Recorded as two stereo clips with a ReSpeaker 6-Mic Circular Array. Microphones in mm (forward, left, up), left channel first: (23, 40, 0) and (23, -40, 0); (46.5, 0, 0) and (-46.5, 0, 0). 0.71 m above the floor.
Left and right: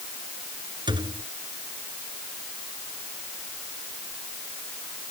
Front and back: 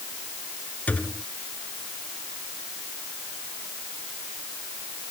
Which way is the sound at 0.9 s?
75° right.